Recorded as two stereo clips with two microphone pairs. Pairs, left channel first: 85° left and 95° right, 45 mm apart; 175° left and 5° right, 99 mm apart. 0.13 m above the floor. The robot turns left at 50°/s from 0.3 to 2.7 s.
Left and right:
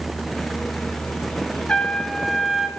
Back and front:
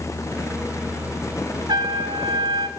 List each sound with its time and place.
1.7 s a trumpet: 25° left, 0.9 m; by 2.7 s 25° right, 0.9 m